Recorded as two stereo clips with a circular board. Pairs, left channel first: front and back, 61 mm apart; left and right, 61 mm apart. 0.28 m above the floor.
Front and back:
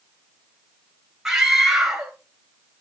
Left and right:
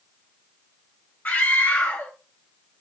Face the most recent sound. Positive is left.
turn(degrees=110)